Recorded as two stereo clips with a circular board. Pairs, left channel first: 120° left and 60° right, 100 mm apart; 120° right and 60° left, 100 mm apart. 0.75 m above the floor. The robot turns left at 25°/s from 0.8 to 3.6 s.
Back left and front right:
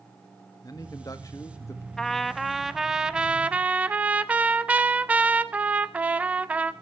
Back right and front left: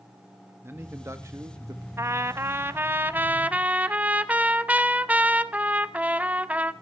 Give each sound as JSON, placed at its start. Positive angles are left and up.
{"t": 0.6, "sound": "a man speaking", "azimuth_deg": 110, "distance_m": 1.3}
{"t": 2.0, "sound": "a trumpet", "azimuth_deg": 40, "distance_m": 0.6}